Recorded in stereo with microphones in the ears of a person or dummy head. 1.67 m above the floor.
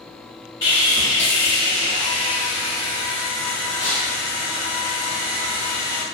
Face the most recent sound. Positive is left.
turn(degrees=25)  # may be behind; listen again after turning